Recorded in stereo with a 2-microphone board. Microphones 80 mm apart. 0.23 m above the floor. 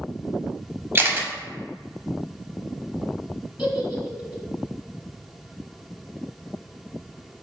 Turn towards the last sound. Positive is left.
turn(degrees=-10)  # may be behind; listen again after turning